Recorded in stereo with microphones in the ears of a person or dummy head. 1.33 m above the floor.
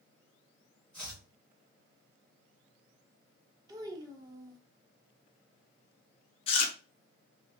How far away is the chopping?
About 1.3 m.